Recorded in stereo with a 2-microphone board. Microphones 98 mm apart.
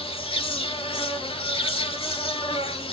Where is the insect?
75° left (ahead or behind), 0.8 m.